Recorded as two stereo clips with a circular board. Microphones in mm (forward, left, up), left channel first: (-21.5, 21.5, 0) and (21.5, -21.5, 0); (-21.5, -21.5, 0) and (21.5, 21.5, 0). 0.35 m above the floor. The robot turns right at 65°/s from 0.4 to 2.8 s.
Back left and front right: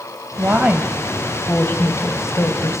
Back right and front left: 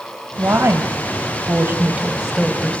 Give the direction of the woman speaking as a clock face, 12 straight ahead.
12 o'clock.